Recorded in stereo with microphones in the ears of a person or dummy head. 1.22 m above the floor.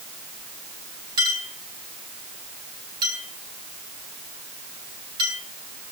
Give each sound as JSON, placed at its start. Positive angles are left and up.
{"t": 1.2, "sound": "a clink", "side_deg": -20, "distance_m": 7.0}